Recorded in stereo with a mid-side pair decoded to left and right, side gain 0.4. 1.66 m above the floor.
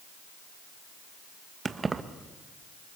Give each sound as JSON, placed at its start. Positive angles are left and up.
{"t": 1.6, "sound": "keys jangling", "azimuth_deg": -35, "distance_m": 1.7}